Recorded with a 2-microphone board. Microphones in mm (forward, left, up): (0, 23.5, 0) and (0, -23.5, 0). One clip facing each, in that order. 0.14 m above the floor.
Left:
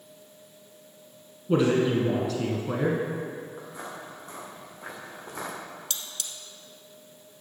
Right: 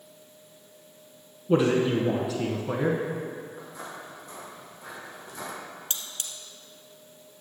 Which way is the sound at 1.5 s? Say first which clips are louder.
Even; 5° right (ahead or behind).